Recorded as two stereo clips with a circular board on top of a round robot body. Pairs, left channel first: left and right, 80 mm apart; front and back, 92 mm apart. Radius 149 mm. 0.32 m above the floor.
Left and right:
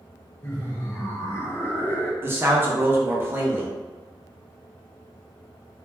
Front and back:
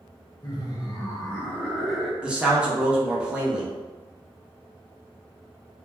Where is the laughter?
35° left, 1.7 m; by 2.1 s 115° left, 0.9 m.